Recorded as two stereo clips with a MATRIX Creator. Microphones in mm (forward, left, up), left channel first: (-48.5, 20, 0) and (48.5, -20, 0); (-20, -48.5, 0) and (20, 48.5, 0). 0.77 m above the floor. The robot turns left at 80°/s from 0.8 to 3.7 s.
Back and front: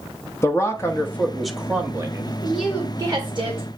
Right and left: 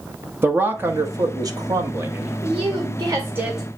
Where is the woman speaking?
75° left, 1.7 m; by 3.7 s 25° right, 1.7 m.